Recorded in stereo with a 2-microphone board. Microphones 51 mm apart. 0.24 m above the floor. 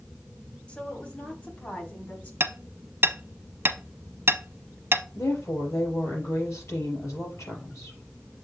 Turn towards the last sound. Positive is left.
turn(degrees=75)  # may be behind; listen again after turning